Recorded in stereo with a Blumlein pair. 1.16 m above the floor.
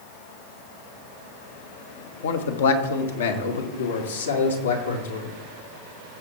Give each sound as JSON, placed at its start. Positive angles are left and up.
{"t": 2.2, "sound": "a man speaking", "azimuth_deg": 60, "distance_m": 1.2}